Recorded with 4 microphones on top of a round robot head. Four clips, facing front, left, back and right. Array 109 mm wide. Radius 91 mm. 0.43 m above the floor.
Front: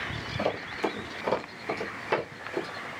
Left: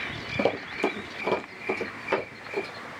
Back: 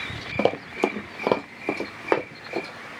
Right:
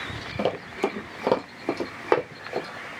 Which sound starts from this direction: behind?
Running footsteps, at 0.4 s.